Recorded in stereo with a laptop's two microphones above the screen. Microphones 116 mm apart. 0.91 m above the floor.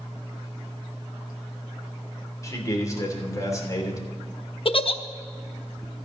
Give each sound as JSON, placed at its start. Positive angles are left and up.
{"t": 2.4, "sound": "a man speaking", "side_deg": 30, "distance_m": 3.0}
{"t": 4.7, "sound": "a giggle", "side_deg": 50, "distance_m": 0.8}